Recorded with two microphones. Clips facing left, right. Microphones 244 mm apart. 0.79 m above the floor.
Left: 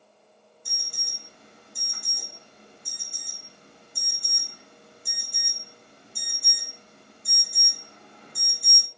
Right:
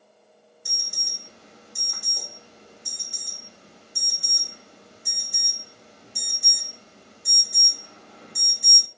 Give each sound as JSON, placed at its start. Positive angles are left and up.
{"t": 0.7, "sound": "an alarm", "side_deg": -80, "distance_m": 2.0}